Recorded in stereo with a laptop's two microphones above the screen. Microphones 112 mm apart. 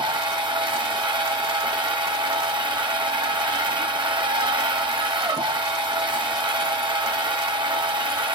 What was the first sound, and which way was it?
A machine running, 45° right (ahead or behind).